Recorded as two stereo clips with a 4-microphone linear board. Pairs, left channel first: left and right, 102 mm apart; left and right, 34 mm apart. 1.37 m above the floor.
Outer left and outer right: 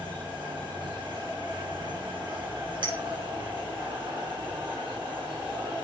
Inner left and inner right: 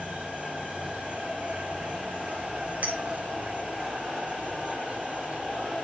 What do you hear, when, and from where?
0.0 s an insect: 55° right (ahead or behind), 6 m
2.8 s a clink: 50° right (ahead or behind), 4.5 m